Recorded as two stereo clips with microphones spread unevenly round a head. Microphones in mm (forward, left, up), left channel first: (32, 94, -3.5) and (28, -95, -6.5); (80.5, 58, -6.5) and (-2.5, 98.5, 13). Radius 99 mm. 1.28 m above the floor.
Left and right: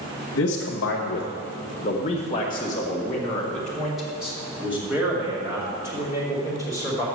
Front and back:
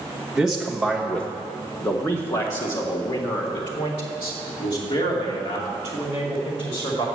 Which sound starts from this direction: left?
A man speaking, at 0.3 s.